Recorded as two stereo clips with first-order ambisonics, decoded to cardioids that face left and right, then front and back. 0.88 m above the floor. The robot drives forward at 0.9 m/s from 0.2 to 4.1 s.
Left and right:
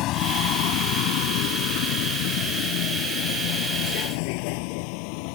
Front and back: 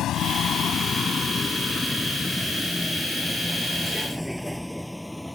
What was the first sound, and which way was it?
A vehicle, 50° left.